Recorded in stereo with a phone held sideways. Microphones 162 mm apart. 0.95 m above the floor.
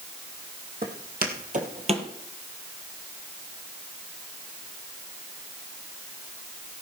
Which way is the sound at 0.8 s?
70° right (ahead or behind).